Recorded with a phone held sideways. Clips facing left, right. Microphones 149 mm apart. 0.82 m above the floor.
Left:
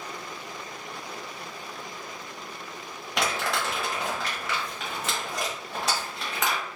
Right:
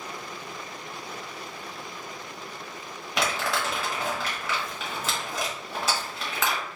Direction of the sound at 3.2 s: Centre (ahead or behind).